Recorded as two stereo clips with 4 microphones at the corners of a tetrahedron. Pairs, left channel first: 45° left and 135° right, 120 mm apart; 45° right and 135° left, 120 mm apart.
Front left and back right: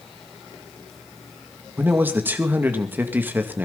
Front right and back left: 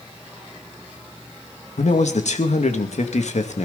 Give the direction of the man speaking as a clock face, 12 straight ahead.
2 o'clock.